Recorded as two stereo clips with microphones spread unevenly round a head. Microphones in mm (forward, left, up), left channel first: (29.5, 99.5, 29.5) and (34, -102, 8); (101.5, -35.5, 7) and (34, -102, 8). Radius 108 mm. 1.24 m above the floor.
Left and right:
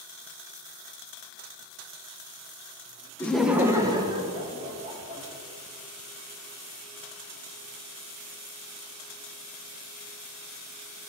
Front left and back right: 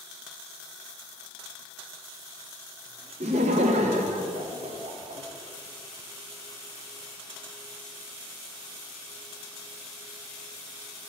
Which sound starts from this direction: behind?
Laughter, at 3.2 s.